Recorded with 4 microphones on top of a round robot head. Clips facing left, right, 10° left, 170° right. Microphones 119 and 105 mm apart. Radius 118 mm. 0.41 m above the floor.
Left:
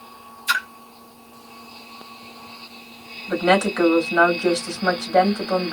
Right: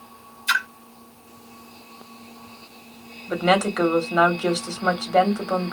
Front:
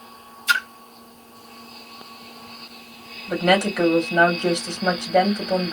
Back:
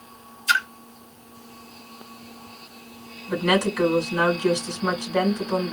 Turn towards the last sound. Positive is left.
turn(degrees=-10)